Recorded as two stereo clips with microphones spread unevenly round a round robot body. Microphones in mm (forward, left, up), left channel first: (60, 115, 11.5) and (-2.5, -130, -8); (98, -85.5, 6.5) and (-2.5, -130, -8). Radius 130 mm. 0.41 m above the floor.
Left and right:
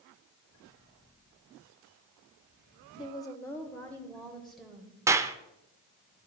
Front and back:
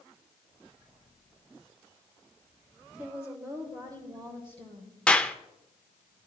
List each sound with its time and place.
3.0 s a woman speaking: 140° left, 1.2 m; by 5.0 s 170° left, 2.0 m
5.1 s a clap: 65° right, 0.6 m